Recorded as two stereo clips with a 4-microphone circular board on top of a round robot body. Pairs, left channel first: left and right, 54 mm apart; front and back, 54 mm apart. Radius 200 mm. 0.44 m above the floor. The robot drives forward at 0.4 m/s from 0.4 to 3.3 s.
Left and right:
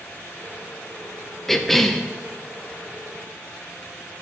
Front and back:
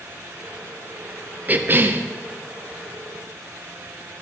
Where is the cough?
170° left, 0.9 m; by 2.0 s 175° left, 1.0 m.